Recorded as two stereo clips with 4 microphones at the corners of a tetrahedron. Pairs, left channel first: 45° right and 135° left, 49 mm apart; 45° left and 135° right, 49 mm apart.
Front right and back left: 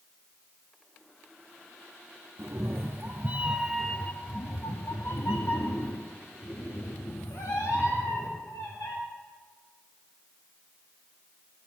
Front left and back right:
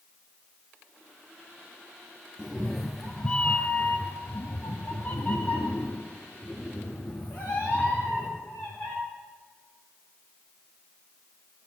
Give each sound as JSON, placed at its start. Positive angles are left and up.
{"t": 2.4, "sound": "a cat meowing", "azimuth_deg": 145, "distance_m": 1.2}